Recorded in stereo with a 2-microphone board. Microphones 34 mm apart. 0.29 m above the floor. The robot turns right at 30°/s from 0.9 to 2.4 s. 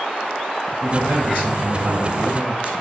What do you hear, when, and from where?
0.8 s a man speaking: 95° right, 2.5 m; by 2.8 s 50° right, 2.5 m